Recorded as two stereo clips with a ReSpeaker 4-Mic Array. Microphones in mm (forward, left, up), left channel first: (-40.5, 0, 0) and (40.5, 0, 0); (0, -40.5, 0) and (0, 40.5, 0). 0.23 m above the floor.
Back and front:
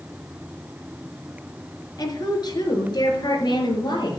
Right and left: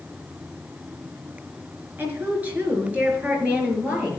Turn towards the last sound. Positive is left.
turn(degrees=160)